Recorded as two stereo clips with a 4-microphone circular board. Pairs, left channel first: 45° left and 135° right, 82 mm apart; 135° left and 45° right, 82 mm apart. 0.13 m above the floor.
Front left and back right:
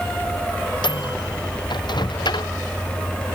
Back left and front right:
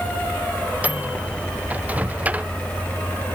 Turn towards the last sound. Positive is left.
turn(degrees=25)